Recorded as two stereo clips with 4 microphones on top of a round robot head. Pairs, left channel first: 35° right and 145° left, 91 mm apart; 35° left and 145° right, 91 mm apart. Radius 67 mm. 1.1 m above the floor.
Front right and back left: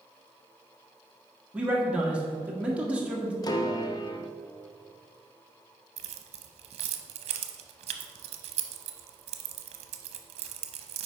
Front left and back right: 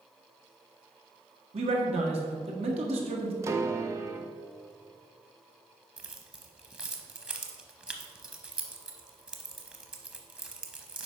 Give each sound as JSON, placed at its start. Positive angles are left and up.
{"t": 1.5, "sound": "a man speaking", "azimuth_deg": -140, "distance_m": 1.6}
{"t": 3.4, "sound": "a piano", "azimuth_deg": -85, "distance_m": 0.7}
{"t": 6.0, "sound": "keys jangling", "azimuth_deg": 135, "distance_m": 0.7}